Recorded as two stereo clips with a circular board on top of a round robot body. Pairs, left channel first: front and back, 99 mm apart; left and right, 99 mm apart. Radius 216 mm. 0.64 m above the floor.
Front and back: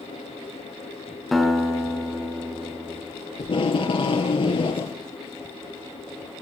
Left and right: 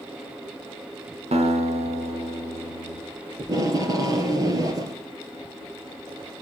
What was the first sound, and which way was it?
A guitar, 90° right.